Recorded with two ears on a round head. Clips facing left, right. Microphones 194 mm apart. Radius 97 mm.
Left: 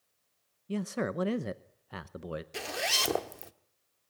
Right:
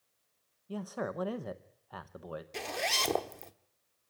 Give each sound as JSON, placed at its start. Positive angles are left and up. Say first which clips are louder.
{"t": 0.7, "sound": "a man speaking", "louder": "left 4 dB", "side_deg": 30, "distance_m": 0.8}
{"t": 2.5, "sound": "a zipper", "louder": "even", "side_deg": 5, "distance_m": 1.0}